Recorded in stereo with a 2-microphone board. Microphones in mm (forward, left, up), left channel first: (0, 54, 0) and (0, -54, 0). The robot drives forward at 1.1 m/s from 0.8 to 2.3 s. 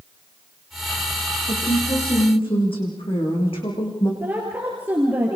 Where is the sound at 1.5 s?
65° left (ahead or behind), 7.5 m; by 4.1 s 60° left (ahead or behind), 8 m.